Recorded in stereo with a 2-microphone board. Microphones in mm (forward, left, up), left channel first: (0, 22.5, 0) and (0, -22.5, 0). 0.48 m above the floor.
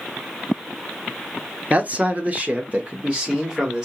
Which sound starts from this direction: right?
A man speaking, at 1.7 s.